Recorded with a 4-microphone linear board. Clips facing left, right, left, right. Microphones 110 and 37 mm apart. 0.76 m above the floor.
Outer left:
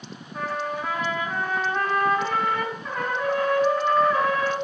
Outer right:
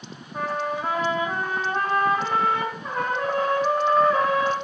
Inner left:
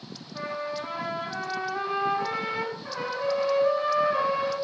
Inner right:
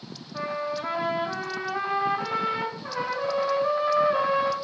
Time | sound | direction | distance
0.3 | a trumpet | 20° right (ahead or behind) | 1.5 m